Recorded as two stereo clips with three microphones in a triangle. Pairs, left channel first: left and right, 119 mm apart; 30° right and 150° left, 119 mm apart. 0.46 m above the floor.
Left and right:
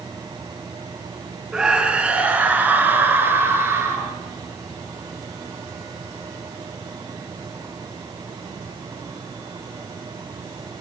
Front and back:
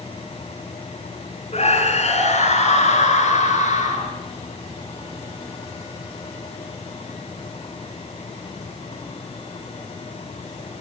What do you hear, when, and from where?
1.5 s a scream: 5° right, 6 m; by 4.1 s 20° right, 9 m